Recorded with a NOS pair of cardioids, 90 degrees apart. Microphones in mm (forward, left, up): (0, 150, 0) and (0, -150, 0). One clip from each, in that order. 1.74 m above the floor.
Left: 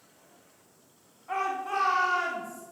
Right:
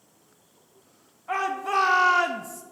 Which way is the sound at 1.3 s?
40° right.